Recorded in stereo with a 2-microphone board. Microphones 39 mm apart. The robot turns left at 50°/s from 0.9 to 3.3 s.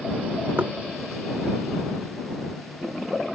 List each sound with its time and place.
0.6 s knocking: 60° right (ahead or behind)